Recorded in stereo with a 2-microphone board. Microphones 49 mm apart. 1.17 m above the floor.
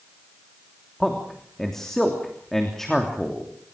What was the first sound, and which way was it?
A man speaking, 10° left (ahead or behind).